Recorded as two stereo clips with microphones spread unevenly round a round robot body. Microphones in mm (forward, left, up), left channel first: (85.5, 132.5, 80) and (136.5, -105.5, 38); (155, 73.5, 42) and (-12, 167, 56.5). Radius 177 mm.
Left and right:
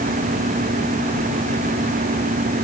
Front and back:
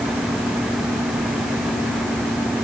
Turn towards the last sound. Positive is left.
No sound to turn to.